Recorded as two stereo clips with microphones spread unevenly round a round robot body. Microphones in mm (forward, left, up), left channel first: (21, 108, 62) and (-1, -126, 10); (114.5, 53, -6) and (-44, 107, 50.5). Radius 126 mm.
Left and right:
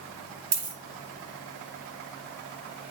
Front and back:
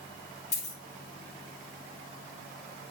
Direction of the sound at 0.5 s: 80° right.